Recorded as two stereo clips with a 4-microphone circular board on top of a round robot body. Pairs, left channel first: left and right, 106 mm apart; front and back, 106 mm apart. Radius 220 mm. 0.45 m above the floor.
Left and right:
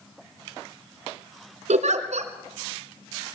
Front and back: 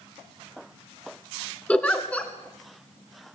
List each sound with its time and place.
1.7 s a giggle: 80° right, 1.9 m